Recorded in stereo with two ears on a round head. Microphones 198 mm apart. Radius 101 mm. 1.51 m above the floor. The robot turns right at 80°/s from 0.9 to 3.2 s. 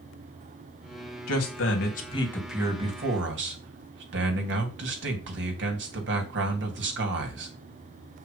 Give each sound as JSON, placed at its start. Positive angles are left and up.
{"t": 1.3, "sound": "a man speaking", "azimuth_deg": 85, "distance_m": 3.0}